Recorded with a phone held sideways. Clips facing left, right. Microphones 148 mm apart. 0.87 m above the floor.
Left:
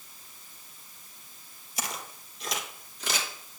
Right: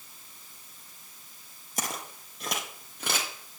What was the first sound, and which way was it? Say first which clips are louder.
Footsteps: right 2 dB; 50° right (ahead or behind).